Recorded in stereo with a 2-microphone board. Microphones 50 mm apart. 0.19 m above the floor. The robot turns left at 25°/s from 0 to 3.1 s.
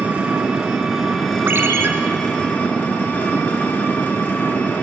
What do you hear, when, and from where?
0.0 s an engine running: 150° right, 1.6 m; by 4.8 s 130° left, 1.6 m
1.5 s a ringtone: 50° right (ahead or behind), 0.9 m; by 1.9 s 55° right (ahead or behind), 0.9 m